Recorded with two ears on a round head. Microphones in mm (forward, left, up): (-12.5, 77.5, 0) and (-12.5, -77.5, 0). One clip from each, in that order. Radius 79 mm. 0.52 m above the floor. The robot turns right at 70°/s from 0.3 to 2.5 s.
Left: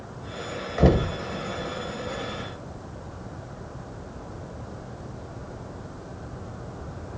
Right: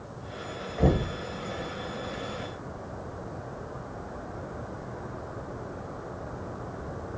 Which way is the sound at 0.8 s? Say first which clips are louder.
Left 5 dB; 70° left (ahead or behind).